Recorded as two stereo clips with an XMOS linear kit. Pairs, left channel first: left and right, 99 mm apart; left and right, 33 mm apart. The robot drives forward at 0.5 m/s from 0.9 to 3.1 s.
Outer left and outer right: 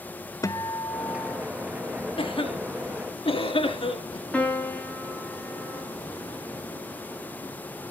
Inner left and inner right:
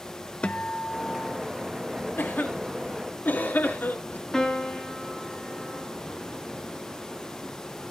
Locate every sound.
0.4 s a guitar: 35° left (ahead or behind), 0.7 m; by 1.5 s 30° left (ahead or behind), 0.8 m
2.2 s a cough: 70° left (ahead or behind), 2.5 m
4.3 s a piano: 10° left (ahead or behind), 2 m